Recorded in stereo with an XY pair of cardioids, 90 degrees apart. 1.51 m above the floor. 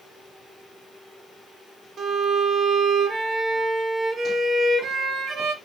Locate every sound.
2.0 s a violin: 60° right, 0.9 m